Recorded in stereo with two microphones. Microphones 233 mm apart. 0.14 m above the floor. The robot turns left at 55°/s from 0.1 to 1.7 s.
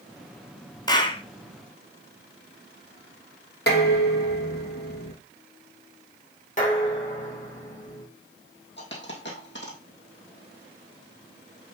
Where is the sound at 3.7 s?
45° left (ahead or behind), 3 m.